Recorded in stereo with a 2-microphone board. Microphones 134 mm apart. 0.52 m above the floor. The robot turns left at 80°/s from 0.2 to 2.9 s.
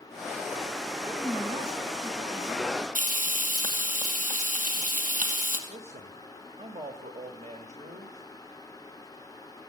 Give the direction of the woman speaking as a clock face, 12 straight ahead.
12 o'clock.